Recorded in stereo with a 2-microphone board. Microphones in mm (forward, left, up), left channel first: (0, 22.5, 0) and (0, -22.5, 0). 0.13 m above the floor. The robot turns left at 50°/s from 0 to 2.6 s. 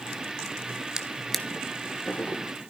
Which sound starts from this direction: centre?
A drawer, at 1.0 s.